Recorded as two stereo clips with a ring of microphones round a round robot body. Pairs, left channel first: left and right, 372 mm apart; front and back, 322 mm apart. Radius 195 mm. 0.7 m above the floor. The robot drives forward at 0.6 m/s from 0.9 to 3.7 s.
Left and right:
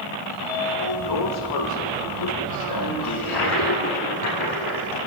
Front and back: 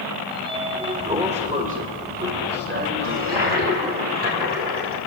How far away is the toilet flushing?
About 7.5 m.